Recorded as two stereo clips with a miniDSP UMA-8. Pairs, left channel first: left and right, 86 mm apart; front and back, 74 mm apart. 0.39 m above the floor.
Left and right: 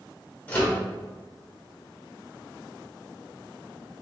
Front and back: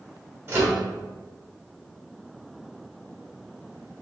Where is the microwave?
150° left, 1.0 m.